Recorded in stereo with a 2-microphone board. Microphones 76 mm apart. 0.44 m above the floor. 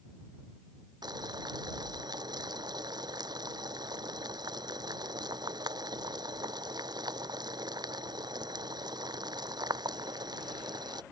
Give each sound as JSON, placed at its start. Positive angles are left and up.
{"t": 1.0, "sound": "boiling", "side_deg": -65}